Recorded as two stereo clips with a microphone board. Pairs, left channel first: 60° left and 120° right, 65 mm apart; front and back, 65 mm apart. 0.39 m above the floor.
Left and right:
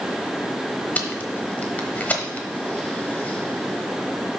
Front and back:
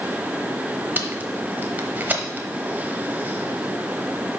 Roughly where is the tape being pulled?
Behind left.